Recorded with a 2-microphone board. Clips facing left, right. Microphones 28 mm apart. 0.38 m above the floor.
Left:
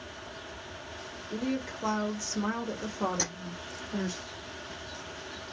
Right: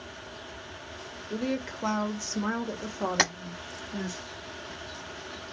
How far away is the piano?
I don't hear a piano.